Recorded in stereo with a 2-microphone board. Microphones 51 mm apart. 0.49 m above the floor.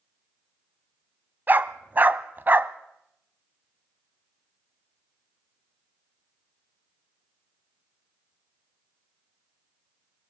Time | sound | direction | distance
1.5 | a dog barking | 40° right (ahead or behind) | 0.7 m